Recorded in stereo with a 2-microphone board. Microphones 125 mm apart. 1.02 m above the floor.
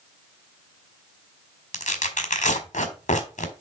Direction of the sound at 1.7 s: 75° left (ahead or behind).